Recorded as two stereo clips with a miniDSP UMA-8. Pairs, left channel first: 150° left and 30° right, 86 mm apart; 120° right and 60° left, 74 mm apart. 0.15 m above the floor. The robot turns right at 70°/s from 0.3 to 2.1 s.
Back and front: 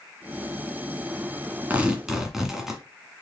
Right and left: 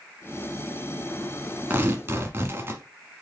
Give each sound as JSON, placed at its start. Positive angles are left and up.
{"t": 1.7, "sound": "tearing paper", "azimuth_deg": 25, "distance_m": 1.2}